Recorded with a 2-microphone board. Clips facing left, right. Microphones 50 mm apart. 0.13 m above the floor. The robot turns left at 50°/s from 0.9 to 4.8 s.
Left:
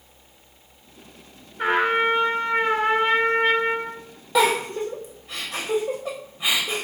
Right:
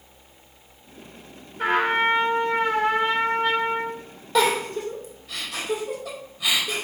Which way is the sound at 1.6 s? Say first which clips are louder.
Left 1 dB; 10° left (ahead or behind).